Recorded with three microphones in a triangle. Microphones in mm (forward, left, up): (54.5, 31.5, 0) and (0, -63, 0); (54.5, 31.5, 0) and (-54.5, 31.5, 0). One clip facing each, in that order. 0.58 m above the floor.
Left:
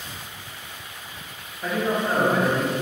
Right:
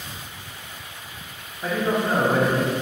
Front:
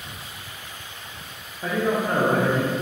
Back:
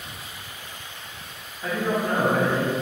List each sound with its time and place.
1.6 s a man speaking: 35° right, 0.8 m